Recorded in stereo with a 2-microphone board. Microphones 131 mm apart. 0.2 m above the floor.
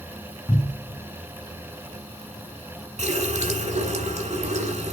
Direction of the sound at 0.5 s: 20° left (ahead or behind).